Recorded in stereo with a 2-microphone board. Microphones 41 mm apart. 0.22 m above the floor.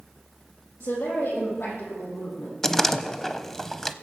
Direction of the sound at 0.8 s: 80° left.